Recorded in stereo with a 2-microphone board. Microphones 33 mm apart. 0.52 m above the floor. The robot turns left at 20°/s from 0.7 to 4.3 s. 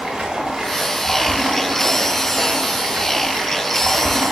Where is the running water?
25° right, 0.9 m; by 4.3 s 95° right, 0.9 m.